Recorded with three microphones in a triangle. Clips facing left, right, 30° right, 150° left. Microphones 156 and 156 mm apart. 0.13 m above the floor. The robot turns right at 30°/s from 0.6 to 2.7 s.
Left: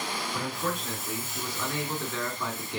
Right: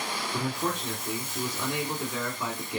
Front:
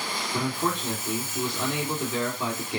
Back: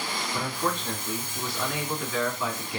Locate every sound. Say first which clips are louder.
0.3 s a man speaking: right 3 dB, front 3 dB; 75° right, 1.7 m; by 2.8 s 10° right, 1.7 m